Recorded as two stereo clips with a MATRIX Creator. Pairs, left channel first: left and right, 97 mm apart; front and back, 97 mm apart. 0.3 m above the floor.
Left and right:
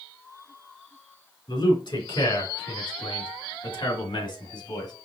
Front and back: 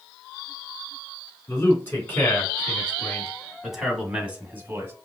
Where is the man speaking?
60° left, 3 m; by 4.9 s 120° left, 1.8 m.